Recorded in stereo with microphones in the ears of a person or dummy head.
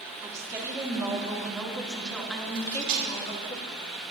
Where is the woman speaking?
15° right (ahead or behind), 2.5 m; by 3.5 s 30° left (ahead or behind), 1.7 m.